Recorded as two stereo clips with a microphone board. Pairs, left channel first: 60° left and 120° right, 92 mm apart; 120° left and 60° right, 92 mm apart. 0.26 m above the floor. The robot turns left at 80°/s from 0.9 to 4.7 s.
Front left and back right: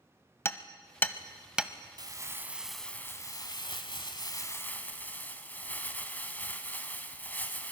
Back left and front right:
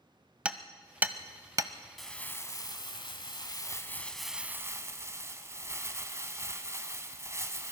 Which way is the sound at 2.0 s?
150° right.